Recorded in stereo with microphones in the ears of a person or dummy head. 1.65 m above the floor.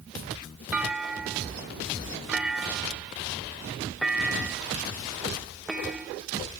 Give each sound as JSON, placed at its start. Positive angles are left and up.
{"t": 0.7, "sound": "a clunk", "side_deg": -10}